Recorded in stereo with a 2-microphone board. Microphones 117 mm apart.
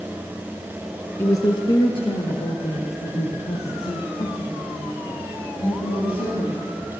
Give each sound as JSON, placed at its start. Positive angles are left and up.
{"t": 1.2, "sound": "a woman speaking", "side_deg": 25, "distance_m": 1.1}